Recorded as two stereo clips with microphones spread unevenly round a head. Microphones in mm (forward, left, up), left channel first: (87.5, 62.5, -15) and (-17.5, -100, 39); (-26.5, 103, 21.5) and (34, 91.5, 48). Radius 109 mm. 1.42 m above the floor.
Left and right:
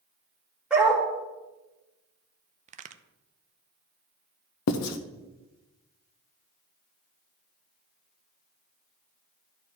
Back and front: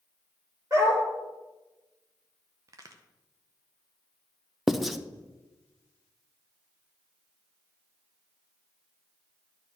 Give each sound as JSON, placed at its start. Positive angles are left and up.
{"t": 0.7, "sound": "a dog barking", "azimuth_deg": -45, "distance_m": 2.0}
{"t": 2.7, "sound": "a crack", "azimuth_deg": -65, "distance_m": 0.6}
{"t": 4.7, "sound": "writing", "azimuth_deg": 70, "distance_m": 0.6}